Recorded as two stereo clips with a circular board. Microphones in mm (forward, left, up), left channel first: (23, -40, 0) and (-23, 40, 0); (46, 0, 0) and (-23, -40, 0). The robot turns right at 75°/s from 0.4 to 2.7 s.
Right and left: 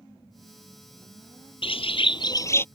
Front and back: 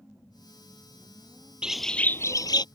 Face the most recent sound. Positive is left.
turn(degrees=10)